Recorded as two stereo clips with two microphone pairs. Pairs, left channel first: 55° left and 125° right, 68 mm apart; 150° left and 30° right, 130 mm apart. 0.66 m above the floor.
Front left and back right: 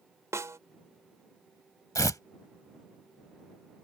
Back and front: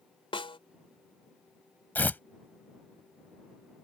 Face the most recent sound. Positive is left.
turn(degrees=75)